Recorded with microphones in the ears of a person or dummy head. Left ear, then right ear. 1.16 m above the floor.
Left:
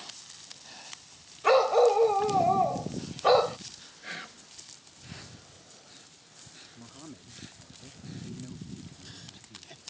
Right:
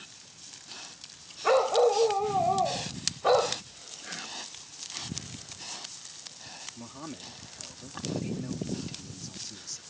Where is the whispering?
15° left (ahead or behind).